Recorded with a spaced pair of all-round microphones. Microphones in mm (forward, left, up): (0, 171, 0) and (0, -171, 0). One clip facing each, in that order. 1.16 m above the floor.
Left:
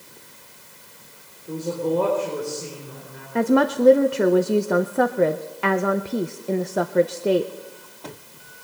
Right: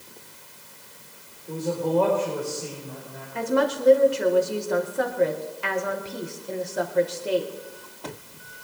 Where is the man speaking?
20° left (ahead or behind), 4 m; by 3.2 s 40° left (ahead or behind), 5 m.